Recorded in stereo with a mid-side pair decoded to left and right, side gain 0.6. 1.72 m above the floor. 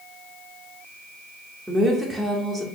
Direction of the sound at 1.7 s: 5° right.